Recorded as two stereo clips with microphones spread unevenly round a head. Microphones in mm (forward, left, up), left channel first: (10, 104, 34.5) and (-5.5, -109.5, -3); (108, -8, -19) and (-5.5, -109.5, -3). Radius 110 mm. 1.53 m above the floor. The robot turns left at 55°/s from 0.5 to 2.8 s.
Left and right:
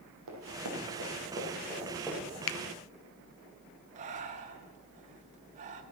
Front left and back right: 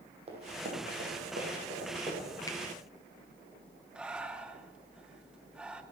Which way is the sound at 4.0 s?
90° right.